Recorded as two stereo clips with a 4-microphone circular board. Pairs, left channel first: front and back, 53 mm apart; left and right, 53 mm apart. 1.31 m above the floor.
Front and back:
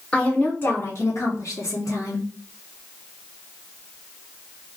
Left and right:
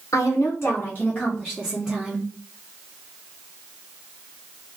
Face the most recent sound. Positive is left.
turn(degrees=-10)